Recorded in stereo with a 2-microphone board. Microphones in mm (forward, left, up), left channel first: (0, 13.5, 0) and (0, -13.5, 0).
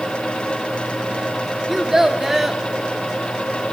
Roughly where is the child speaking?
Centre.